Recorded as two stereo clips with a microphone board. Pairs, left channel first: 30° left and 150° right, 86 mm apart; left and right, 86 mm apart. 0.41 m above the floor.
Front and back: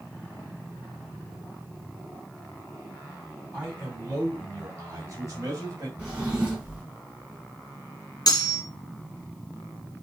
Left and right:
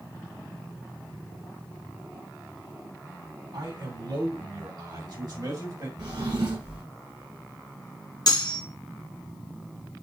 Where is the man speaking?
85° right, 3.5 m; by 5.9 s 115° right, 2.5 m.